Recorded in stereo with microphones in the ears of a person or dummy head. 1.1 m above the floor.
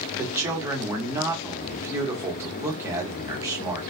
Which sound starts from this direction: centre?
A man speaking, at 0.2 s.